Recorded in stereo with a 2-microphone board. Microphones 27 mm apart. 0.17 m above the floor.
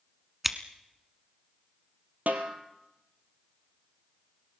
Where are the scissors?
5° right (ahead or behind), 1.1 m.